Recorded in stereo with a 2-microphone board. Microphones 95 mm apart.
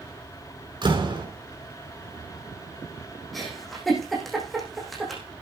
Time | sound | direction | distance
0.8 | a door slam | 55° right (ahead or behind) | 5.5 m
3.3 | a giggle | centre (ahead or behind) | 8 m